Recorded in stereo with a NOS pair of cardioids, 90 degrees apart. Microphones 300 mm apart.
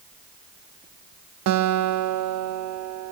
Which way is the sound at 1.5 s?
65° right.